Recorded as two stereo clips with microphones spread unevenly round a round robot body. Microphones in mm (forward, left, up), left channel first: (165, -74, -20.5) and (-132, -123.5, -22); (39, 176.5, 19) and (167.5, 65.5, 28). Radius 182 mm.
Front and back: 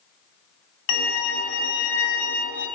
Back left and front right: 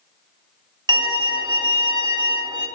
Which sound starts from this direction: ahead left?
A violin, at 0.9 s.